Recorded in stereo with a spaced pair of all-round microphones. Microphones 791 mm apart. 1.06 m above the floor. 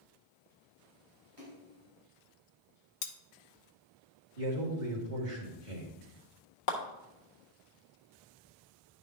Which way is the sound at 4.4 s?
70° right (ahead or behind).